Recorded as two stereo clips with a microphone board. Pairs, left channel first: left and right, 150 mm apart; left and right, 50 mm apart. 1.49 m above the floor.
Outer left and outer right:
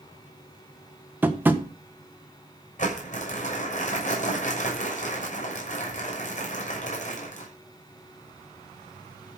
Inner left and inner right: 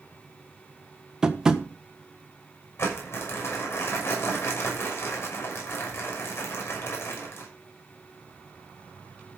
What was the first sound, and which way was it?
Tapping, 15° right (ahead or behind).